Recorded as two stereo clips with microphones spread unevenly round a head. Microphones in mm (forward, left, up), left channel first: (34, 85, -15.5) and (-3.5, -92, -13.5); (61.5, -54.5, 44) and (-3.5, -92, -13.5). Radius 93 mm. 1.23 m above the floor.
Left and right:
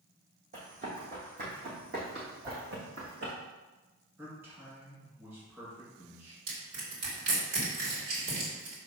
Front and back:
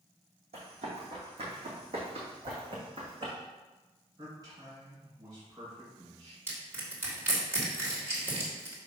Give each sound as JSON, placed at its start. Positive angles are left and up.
{"t": 0.5, "sound": "running footsteps", "azimuth_deg": -150, "distance_m": 3.0}
{"t": 2.4, "sound": "a whoosh", "azimuth_deg": -170, "distance_m": 3.0}
{"t": 4.2, "sound": "a man speaking", "azimuth_deg": 180, "distance_m": 2.5}
{"t": 6.5, "sound": "crushing", "azimuth_deg": -90, "distance_m": 3.0}